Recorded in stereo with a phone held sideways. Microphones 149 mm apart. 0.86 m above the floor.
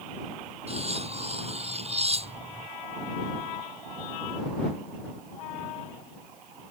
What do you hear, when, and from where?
0.7 s cutlery clinking: 45° right (ahead or behind)